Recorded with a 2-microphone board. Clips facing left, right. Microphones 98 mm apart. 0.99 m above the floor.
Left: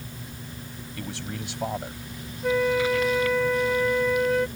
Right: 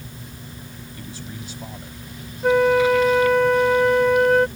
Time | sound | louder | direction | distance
1.0 | a man speaking | left 3 dB | 80° left | ?
2.4 | a flute | right 7 dB | 70° right (ahead or behind) | ?